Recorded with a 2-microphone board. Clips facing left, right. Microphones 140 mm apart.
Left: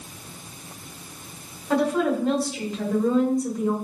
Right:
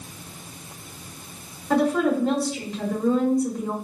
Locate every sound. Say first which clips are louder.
1.7 s a woman speaking: right 1 dB; centre (ahead or behind), 1.2 m